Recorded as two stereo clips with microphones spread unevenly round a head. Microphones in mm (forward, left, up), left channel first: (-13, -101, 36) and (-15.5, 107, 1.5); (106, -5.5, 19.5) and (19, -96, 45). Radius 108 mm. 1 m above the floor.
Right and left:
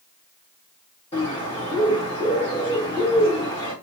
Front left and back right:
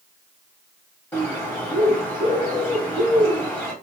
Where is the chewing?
No chewing in this recording.